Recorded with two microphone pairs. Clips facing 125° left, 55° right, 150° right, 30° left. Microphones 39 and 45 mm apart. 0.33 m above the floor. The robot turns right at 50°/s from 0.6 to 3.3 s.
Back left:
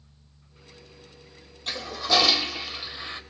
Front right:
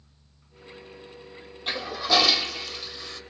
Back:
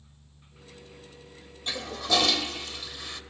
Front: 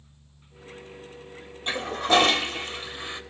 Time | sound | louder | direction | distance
1.7 | a toilet flushing | front right 1 dB, front 6 dB | 10° left | 1.6 m